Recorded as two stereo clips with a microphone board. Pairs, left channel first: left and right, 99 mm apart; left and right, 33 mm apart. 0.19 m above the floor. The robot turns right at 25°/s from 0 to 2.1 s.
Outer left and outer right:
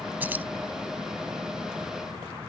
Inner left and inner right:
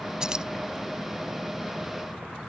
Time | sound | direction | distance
0.2 | keys jangling | 20° right (ahead or behind) | ?